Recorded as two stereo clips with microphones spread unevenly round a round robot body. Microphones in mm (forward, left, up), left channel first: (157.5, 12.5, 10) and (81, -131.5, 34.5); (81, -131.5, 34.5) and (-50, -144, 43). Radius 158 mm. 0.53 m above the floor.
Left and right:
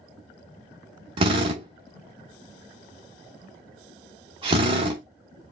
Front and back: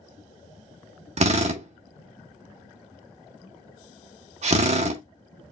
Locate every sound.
1.2 s a drill: straight behind, 0.6 m